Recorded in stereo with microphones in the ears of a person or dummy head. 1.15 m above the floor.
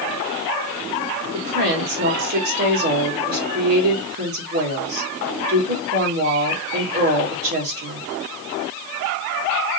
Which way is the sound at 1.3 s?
40° right (ahead or behind).